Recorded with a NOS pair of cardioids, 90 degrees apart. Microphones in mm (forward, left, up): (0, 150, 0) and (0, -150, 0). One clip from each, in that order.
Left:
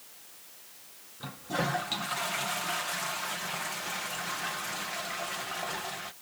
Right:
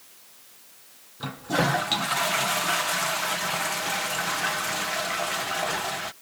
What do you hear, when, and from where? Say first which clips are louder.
1.2 s a toilet flushing: right 7 dB; 45° right